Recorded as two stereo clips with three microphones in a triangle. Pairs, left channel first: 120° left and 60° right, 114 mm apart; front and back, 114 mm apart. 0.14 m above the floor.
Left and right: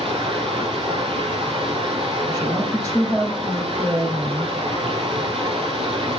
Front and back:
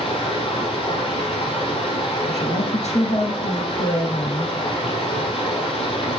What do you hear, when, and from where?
0.0 s running water: 30° right, 3.5 m
2.3 s a woman speaking: 5° right, 5 m